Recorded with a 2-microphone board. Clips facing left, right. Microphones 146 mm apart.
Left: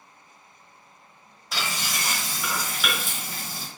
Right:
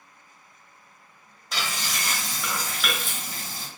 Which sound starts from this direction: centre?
Frying, at 1.5 s.